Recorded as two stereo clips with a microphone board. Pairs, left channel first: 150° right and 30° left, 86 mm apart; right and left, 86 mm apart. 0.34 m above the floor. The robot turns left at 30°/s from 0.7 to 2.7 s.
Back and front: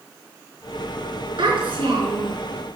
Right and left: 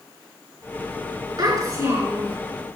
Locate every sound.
1.4 s a child speaking: 45° left, 3.5 m; by 2.4 s 20° left, 3.5 m